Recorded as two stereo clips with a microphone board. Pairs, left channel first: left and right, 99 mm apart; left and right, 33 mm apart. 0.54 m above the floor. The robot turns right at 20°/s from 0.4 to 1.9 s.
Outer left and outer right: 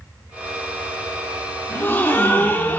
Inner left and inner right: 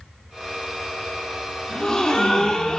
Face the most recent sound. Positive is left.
turn(degrees=20)  # may be behind; listen again after turning